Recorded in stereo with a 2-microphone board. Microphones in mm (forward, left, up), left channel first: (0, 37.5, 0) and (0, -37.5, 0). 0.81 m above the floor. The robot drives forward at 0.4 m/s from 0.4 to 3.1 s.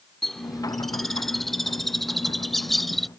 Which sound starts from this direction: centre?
A bird, at 0.2 s.